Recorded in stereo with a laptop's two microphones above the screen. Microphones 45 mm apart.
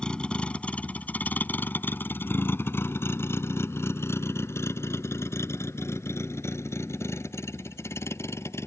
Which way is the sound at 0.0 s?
20° left (ahead or behind).